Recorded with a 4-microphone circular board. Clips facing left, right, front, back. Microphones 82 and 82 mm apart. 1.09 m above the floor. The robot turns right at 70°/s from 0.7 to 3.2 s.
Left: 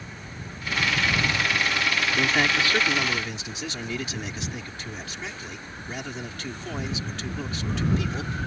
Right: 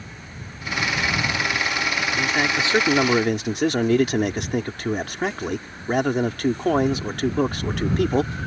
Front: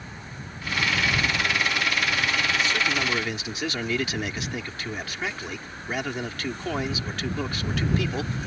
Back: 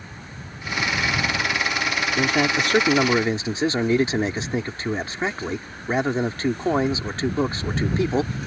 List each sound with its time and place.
2.2 s a man speaking: 170° left; by 8.3 s 120° right